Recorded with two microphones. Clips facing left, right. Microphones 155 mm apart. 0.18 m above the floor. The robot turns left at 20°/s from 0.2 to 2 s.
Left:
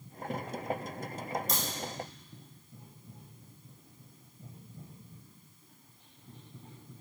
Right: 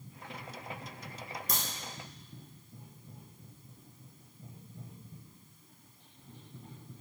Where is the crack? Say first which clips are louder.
Left 3 dB; 60° right (ahead or behind), 1.0 m; by 1.6 s 55° right (ahead or behind), 1.0 m.